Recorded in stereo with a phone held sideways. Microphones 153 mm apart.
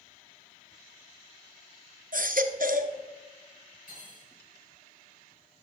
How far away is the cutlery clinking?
About 5.5 m.